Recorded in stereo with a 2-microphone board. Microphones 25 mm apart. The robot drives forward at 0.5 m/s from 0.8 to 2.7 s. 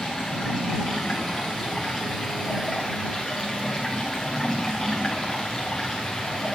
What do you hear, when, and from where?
0.0 s running water: 5° left (ahead or behind), 5.5 m